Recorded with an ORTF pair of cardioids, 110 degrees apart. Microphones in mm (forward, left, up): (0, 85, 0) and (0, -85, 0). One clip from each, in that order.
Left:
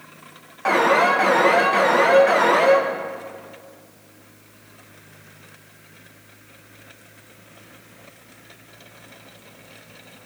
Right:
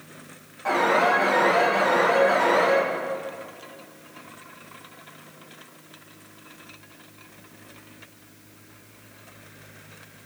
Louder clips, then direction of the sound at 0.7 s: Left 4 dB; 55° left.